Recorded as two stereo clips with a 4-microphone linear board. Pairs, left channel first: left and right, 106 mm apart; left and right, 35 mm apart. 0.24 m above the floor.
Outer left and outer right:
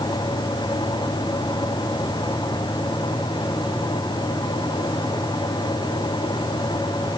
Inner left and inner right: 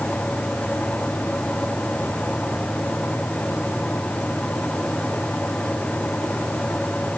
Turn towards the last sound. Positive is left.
No sound to turn to.